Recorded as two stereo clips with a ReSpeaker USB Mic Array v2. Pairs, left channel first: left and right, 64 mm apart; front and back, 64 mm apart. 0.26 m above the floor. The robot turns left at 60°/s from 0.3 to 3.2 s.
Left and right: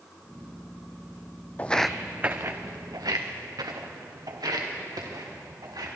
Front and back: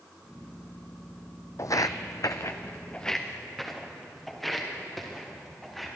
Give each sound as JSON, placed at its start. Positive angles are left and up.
{"t": 1.6, "sound": "footsteps", "azimuth_deg": 25, "distance_m": 0.5}